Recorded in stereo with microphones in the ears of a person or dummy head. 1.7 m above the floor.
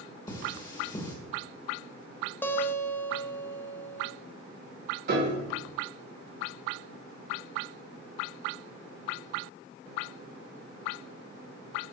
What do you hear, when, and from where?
0.3 s cutlery clinking: 25° left (ahead or behind), 2 m
2.4 s a guitar: 10° left (ahead or behind), 0.7 m
5.1 s a piano: 55° right (ahead or behind), 1.6 m